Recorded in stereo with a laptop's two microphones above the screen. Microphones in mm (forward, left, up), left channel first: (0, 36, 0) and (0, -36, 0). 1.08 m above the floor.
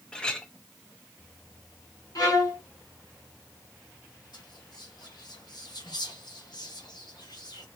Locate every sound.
0.1 s a clink: 15° left (ahead or behind), 0.8 m
2.1 s a violin: 60° left (ahead or behind), 1.5 m
4.3 s whispering: 75° left (ahead or behind), 1.1 m